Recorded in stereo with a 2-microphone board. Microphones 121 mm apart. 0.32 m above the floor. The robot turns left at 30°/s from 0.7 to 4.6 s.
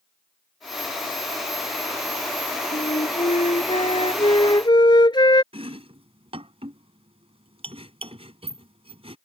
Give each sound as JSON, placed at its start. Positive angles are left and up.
{"t": 2.7, "sound": "a flute", "azimuth_deg": 95}
{"t": 5.5, "sound": "chopping", "side_deg": -55}